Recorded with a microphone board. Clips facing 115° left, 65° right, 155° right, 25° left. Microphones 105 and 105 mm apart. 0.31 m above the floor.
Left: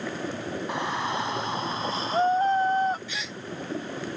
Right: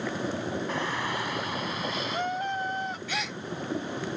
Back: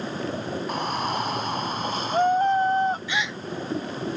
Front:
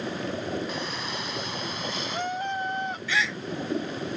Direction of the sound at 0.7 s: Straight behind.